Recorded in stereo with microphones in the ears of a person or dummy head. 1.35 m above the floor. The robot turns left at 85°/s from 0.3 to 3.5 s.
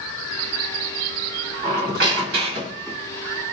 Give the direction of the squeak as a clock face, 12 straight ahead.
1 o'clock.